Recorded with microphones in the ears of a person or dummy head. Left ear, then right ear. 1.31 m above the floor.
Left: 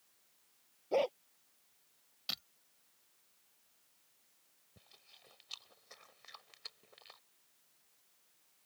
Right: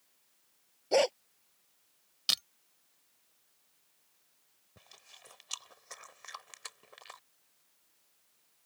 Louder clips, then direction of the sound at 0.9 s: Right 6 dB; 75° right (ahead or behind).